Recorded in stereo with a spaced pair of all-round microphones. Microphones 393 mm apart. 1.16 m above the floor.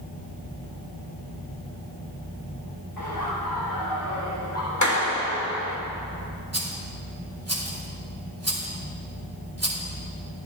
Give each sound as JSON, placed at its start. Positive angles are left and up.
{"t": 3.0, "sound": "laughter", "side_deg": 65, "distance_m": 3.0}
{"t": 4.8, "sound": "a clap", "side_deg": 45, "distance_m": 2.0}
{"t": 6.5, "sound": "a rattle", "side_deg": -40, "distance_m": 2.5}